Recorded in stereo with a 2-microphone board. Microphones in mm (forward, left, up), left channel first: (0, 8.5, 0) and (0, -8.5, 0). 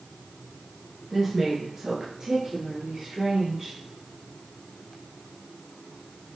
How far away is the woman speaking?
About 1.3 m.